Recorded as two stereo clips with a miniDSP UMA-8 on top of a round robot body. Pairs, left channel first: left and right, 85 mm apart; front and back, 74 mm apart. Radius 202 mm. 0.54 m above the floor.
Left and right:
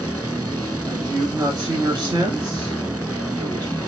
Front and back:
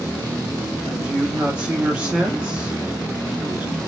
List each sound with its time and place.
0.9 s a man speaking: 110° right, 1.9 m